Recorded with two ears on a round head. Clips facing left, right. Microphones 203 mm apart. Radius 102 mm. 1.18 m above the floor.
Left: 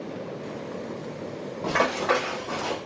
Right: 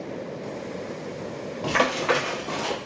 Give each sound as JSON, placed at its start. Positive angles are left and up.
{"t": 1.6, "sound": "running footsteps", "side_deg": -45, "distance_m": 1.5}